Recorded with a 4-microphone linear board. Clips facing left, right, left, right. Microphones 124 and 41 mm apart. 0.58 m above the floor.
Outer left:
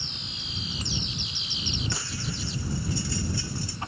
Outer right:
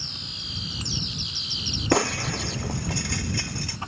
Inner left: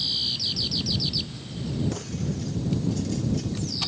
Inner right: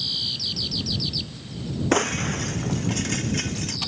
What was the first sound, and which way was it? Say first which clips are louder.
Breaking glass: outer right 12 dB, inner right 9 dB; 65° right (ahead or behind).